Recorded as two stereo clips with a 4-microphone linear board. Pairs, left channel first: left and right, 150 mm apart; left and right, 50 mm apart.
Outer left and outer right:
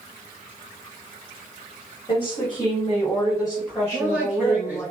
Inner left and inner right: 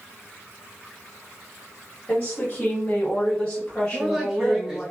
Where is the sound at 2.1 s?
40° left (ahead or behind), 1.6 m; by 4.9 s centre (ahead or behind), 1.4 m.